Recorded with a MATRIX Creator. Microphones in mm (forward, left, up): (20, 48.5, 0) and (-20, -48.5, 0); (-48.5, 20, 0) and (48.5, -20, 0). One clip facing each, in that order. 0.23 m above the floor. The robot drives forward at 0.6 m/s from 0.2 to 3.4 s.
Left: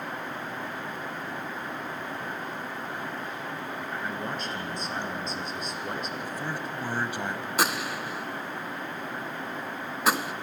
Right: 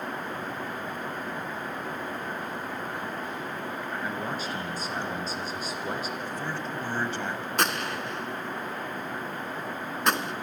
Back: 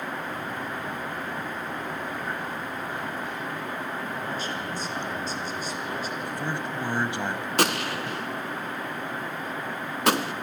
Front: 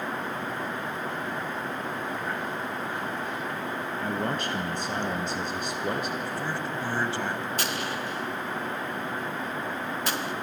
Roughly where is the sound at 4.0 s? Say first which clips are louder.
Right 1 dB, front 3 dB; ahead right.